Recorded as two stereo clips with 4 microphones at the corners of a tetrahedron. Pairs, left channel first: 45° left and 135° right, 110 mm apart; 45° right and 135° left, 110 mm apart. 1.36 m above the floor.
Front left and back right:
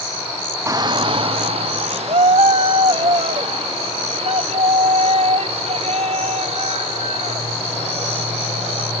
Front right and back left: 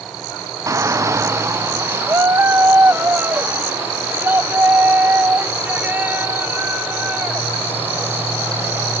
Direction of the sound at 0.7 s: 175° left.